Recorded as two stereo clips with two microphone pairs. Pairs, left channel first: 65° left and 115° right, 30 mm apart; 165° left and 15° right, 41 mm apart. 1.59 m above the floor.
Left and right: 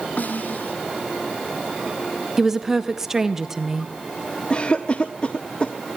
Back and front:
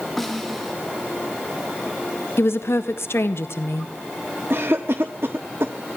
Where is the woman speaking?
170° left, 1.5 m.